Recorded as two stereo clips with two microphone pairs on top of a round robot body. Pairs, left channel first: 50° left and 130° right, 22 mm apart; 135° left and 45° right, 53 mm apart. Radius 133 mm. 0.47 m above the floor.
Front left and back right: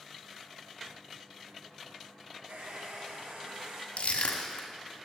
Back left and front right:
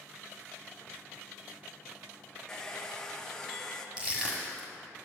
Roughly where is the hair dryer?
Behind right.